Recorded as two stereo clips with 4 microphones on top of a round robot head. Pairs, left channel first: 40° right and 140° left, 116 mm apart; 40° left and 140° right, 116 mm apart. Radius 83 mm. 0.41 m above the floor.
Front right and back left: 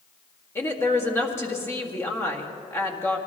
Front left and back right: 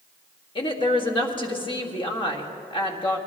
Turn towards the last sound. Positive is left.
turn(degrees=20)